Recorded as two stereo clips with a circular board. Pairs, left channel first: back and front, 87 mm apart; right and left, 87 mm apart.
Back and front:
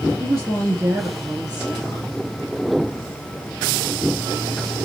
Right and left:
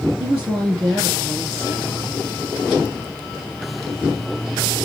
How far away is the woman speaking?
About 1.3 m.